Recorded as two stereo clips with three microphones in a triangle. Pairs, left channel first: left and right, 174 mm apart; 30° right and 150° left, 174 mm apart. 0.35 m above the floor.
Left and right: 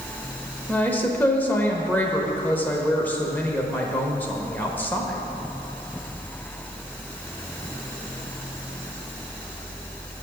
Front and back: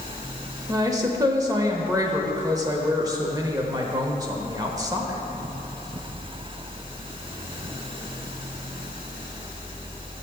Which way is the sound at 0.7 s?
150° left.